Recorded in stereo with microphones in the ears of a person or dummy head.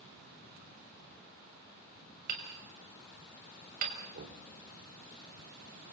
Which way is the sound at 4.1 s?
55° right (ahead or behind).